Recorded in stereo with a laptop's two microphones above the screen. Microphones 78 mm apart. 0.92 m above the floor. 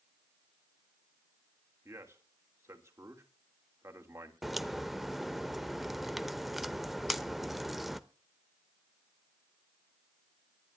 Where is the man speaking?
35° right (ahead or behind), 3.5 m.